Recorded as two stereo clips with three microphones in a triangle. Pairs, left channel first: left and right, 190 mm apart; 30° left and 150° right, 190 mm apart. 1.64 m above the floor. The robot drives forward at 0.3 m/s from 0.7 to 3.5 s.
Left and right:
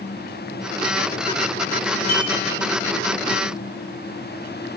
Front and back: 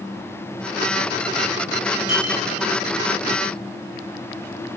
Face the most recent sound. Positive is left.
turn(degrees=40)